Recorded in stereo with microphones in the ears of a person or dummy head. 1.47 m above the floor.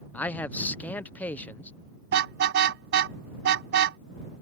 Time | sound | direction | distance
0.1 | a man speaking | 10° left (ahead or behind) | ?
2.1 | a car horn | 60° right (ahead or behind) | ?